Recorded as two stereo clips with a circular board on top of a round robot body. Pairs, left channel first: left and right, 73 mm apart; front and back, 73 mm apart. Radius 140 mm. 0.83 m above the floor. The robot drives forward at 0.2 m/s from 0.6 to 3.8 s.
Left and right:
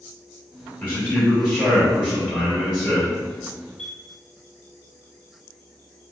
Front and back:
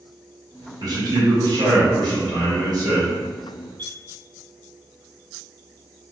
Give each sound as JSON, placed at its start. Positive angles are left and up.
{"t": 0.8, "sound": "a man speaking", "azimuth_deg": 155, "distance_m": 1.2}
{"t": 3.8, "sound": "a chime", "azimuth_deg": 170, "distance_m": 2.0}